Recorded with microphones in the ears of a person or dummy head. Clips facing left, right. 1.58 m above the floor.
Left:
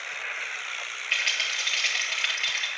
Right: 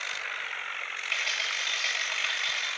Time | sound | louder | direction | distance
1.1 | a rattle | even | 5° left (ahead or behind) | 2.0 m